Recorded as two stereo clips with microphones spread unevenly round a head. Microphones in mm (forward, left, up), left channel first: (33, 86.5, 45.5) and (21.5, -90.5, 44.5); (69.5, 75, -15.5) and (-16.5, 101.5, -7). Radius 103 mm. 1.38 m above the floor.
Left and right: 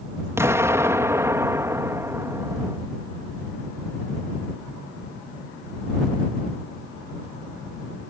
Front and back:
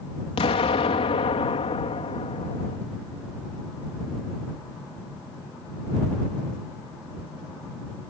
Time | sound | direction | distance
0.4 | an explosion | 20° right | ?